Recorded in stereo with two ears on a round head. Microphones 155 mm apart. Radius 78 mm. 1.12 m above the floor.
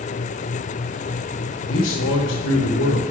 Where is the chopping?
No chopping in this recording.